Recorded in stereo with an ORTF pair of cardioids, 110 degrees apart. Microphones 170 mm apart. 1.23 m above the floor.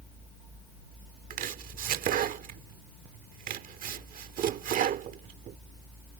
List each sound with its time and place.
1.3 s chopping: 60° right